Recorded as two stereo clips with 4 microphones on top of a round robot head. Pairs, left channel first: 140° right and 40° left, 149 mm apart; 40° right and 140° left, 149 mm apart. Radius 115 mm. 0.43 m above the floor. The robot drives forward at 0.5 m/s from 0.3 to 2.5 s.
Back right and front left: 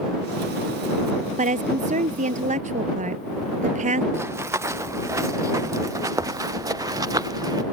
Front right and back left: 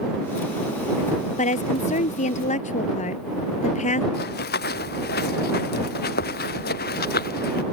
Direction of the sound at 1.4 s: Straight ahead.